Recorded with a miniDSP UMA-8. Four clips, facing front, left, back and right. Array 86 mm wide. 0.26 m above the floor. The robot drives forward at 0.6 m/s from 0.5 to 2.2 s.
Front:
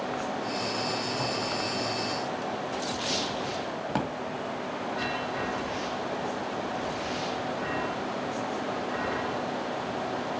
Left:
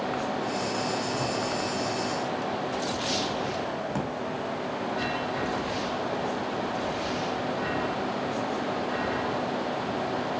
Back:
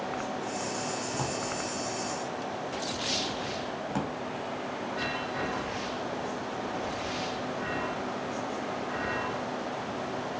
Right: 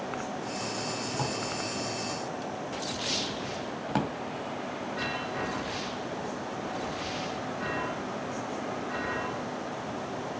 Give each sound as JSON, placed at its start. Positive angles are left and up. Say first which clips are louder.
{"t": 1.1, "sound": "a drawer", "louder": "left 4 dB, front 2 dB", "azimuth_deg": -120, "distance_m": 2.5}
{"t": 3.9, "sound": "a drawer", "louder": "even, front 3 dB", "azimuth_deg": -45, "distance_m": 0.9}